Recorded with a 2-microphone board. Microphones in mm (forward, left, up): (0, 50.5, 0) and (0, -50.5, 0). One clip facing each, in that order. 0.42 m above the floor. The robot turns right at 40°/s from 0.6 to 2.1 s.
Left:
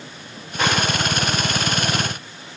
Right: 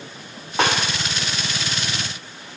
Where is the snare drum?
75° right (ahead or behind), 2.5 m; by 0.8 s 70° right (ahead or behind), 2.5 m.